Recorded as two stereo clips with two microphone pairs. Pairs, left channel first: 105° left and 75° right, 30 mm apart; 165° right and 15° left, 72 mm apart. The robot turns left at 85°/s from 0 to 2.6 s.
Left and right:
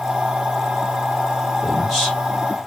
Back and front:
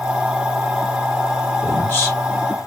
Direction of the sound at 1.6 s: 135° right.